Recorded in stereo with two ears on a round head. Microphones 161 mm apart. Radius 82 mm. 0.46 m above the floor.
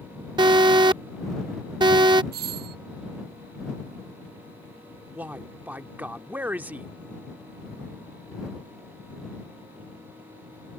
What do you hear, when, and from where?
0.4 s an alarm: 25° right (ahead or behind)
2.3 s a doorbell: 60° right (ahead or behind)
5.2 s a man speaking: 10° right (ahead or behind)